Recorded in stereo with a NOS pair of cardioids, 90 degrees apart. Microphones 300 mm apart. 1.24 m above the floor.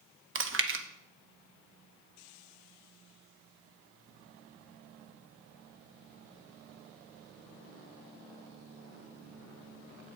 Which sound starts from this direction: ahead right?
Chewing, at 0.3 s.